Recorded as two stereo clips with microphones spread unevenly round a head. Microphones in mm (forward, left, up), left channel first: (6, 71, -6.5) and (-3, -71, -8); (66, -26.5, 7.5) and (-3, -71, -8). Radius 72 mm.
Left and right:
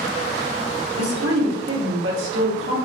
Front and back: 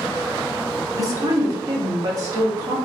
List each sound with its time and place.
0.9 s a woman speaking: 100° right, 1.8 m